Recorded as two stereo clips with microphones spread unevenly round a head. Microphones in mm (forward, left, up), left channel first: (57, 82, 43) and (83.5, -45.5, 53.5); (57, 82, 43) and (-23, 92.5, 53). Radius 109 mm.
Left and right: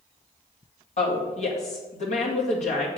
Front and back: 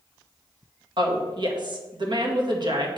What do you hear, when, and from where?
1.0 s a woman speaking: 145° left, 1.8 m